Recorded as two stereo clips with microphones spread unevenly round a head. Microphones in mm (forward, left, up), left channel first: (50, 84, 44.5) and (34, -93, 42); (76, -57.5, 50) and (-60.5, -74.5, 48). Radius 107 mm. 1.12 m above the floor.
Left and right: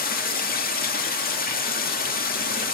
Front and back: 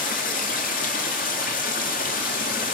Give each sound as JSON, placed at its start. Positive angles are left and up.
{"t": 0.0, "sound": "running water", "azimuth_deg": 45, "distance_m": 1.8}